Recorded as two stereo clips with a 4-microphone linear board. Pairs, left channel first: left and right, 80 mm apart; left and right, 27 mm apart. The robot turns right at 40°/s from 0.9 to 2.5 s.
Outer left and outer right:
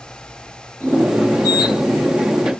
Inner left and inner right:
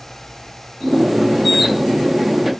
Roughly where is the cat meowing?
I don't hear a cat meowing.